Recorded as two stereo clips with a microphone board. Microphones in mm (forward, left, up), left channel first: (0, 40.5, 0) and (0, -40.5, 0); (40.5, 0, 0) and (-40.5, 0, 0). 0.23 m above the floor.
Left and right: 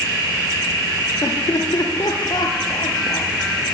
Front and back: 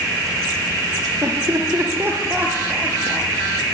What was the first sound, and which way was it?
Laughter, 130° left.